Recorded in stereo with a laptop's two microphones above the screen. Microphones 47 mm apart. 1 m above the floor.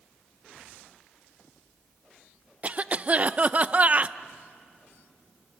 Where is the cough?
35° right (ahead or behind), 0.6 m.